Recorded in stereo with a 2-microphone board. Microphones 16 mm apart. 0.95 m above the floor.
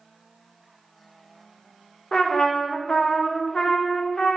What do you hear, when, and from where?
2.1 s a trumpet: 55° left (ahead or behind), 0.6 m